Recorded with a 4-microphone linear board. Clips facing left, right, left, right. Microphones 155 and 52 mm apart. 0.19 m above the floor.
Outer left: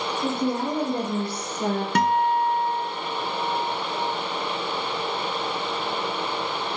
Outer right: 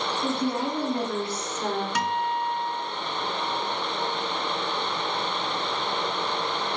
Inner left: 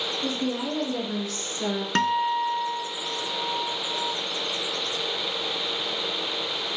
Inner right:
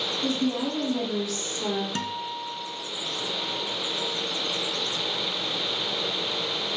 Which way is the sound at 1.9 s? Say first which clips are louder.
Outer left 6 dB, inner left 9 dB; 55° left (ahead or behind).